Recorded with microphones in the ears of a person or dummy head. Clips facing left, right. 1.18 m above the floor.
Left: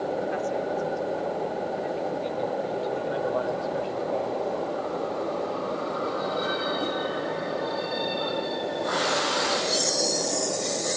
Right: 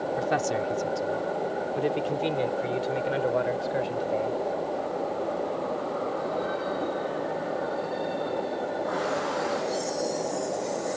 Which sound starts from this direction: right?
A man speaking, at 0.2 s.